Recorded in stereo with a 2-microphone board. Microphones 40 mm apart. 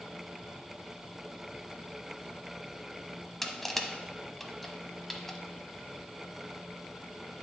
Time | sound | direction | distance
3.4 | crushing | 5° left (ahead or behind) | 0.5 m